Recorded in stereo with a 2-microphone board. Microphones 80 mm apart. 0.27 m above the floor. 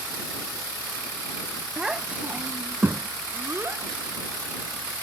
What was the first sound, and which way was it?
A child speaking, 5° right (ahead or behind).